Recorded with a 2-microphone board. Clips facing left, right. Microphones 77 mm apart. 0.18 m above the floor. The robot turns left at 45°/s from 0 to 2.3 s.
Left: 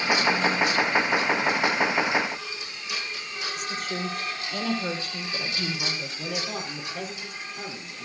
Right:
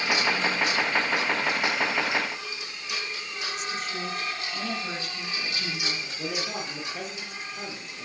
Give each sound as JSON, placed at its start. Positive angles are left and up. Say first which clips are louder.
{"t": 3.6, "sound": "a woman speaking", "louder": "left 2 dB", "side_deg": 50, "distance_m": 4.5}
{"t": 6.2, "sound": "a man speaking", "louder": "right 1 dB", "side_deg": -5, "distance_m": 4.0}